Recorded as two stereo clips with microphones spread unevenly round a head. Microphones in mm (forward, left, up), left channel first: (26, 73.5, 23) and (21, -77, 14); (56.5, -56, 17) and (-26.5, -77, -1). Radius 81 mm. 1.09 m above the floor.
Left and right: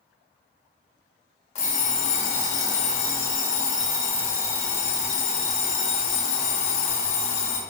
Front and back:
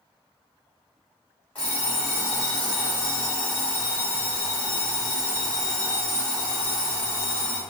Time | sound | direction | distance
1.6 | an alarm clock | 75° left | 0.8 m